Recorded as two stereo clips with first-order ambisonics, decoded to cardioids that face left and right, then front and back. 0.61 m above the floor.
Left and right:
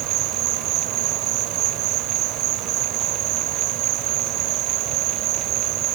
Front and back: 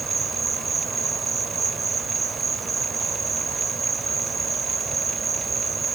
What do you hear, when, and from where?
0.0 s an insect: 105° right